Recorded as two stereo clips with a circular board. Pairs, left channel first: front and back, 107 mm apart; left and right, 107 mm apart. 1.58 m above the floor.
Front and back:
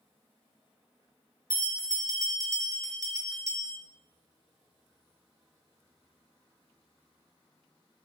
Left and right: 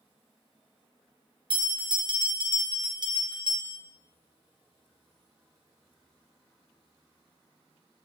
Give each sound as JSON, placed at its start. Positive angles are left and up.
{"t": 1.5, "sound": "a bell", "azimuth_deg": -125, "distance_m": 0.7}